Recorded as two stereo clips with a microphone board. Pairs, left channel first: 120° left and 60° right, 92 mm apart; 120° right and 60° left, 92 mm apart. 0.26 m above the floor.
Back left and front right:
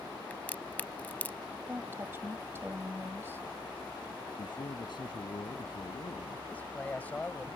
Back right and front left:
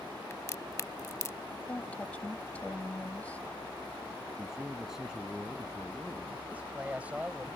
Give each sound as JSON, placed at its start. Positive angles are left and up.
{"t": 0.3, "sound": "a crack", "azimuth_deg": -175}
{"t": 1.7, "sound": "a woman speaking", "azimuth_deg": -70}
{"t": 4.4, "sound": "a man speaking", "azimuth_deg": 140}
{"t": 6.5, "sound": "a man speaking", "azimuth_deg": 95}